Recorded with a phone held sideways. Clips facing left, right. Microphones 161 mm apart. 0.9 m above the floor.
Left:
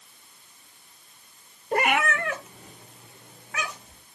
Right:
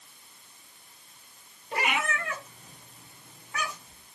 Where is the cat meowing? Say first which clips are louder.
Left 6 dB; 45° left (ahead or behind), 0.7 m; by 4.0 s 90° left, 2.5 m.